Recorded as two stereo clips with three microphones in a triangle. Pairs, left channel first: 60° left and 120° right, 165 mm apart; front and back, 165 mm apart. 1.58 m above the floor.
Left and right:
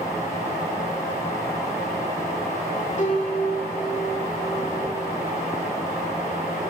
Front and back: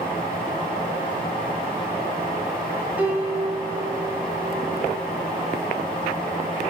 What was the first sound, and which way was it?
A piano, 100° left.